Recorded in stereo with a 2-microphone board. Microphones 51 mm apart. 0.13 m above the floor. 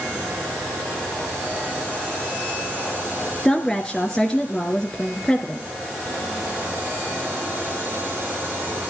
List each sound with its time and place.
3.5 s a woman speaking: 10° left (ahead or behind), 1.8 m